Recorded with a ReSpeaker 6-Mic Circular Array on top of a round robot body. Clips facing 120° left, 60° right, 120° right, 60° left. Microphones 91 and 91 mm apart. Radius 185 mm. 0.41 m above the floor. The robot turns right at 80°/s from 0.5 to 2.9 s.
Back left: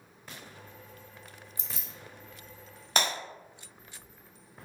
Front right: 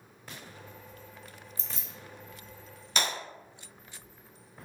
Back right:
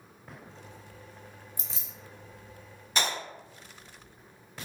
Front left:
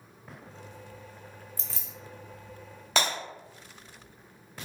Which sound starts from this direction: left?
Breaking glass, at 3.0 s.